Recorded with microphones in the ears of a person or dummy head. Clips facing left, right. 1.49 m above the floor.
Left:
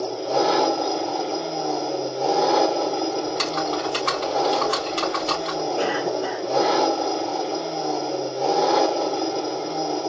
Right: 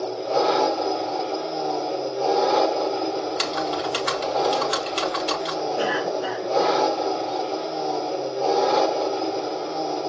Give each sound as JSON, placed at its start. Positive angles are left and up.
{"t": 0.0, "sound": "an engine running", "side_deg": -5, "distance_m": 4.0}
{"t": 3.2, "sound": "typing on a keyboard", "side_deg": -5, "distance_m": 1.4}
{"t": 5.8, "sound": "a cough", "side_deg": -10, "distance_m": 1.9}